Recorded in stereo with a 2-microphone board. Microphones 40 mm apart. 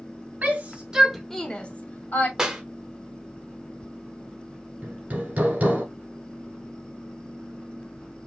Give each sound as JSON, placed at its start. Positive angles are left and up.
{"t": 0.4, "sound": "a shout", "side_deg": -40, "distance_m": 1.2}
{"t": 2.4, "sound": "a clap", "side_deg": -15, "distance_m": 1.1}
{"t": 4.8, "sound": "hammering", "side_deg": -40, "distance_m": 1.5}